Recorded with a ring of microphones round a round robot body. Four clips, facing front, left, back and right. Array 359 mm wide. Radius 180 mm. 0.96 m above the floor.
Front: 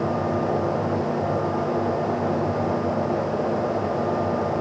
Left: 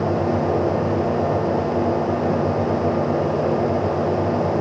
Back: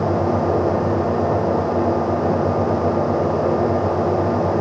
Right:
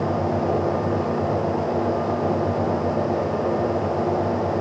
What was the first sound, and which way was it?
Only background noise.